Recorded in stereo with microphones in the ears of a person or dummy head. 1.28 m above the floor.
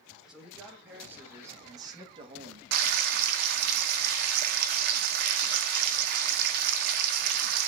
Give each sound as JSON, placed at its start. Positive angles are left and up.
{"t": 0.3, "sound": "a man speaking", "side_deg": -5, "distance_m": 2.5}
{"t": 2.7, "sound": "frying", "side_deg": -60, "distance_m": 0.6}